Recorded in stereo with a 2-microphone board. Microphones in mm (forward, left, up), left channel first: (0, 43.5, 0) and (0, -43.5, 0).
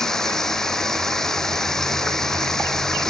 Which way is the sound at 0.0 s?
5° left (ahead or behind).